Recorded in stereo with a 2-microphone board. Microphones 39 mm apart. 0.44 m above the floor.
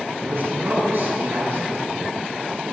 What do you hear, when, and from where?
0.2 s a man speaking: 65° right (ahead or behind), 4.5 m